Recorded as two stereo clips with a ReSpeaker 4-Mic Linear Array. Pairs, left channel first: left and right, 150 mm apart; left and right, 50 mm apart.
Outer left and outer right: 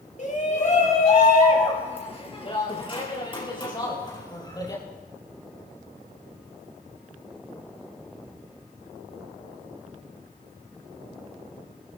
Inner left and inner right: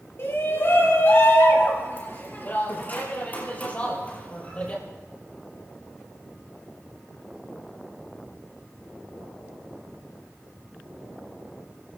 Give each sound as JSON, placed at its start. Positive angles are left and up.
{"t": 0.2, "sound": "a shout", "side_deg": 55, "distance_m": 4.0}